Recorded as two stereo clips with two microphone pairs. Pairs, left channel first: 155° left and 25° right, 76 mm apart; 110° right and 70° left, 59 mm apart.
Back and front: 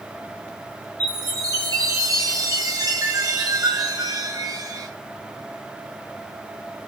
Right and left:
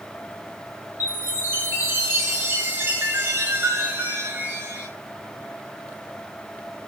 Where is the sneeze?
I don't hear a sneeze.